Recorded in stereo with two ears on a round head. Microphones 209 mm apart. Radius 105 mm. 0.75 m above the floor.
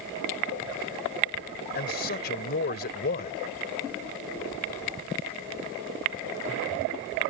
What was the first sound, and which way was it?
A man speaking, 45° left (ahead or behind).